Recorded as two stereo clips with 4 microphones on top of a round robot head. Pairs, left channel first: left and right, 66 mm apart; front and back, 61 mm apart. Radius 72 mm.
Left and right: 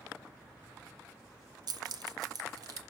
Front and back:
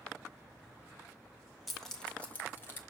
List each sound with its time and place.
1.7 s keys jangling: 90° right, 0.9 m; by 2.8 s 60° right, 1.3 m